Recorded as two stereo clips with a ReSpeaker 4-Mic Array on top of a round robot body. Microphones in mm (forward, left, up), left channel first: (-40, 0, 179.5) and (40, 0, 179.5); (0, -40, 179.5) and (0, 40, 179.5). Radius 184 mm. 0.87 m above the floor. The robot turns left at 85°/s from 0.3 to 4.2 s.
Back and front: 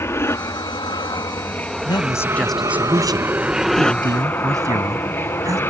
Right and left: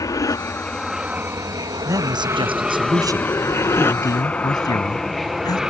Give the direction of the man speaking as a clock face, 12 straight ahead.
7 o'clock.